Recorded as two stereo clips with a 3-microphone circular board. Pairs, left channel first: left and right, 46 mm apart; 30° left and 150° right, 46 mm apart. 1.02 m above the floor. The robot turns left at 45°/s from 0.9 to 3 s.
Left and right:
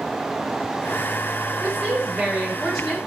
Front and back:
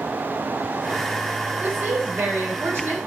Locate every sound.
1.6 s a woman speaking: 130° right, 3 m; by 3.0 s 165° left, 3 m